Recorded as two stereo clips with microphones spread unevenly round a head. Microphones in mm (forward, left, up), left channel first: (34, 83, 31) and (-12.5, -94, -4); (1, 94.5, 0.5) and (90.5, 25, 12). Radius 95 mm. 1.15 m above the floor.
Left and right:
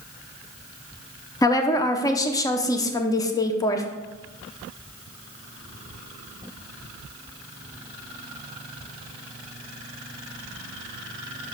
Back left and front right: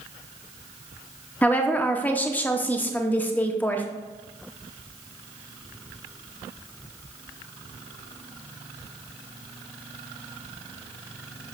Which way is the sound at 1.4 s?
145° left.